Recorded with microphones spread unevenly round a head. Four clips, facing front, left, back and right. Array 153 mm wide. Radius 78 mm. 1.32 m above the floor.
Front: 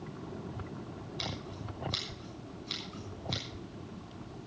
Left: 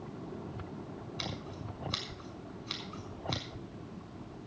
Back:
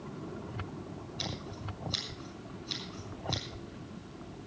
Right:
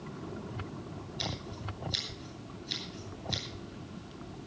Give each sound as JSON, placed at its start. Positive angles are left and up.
{"t": 1.2, "sound": "scissors", "azimuth_deg": 85, "distance_m": 6.0}